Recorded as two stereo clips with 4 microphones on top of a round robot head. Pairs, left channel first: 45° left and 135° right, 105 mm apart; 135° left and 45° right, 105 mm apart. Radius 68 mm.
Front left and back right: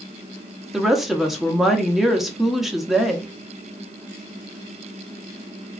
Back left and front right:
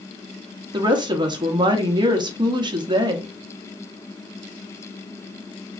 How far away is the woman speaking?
About 0.9 m.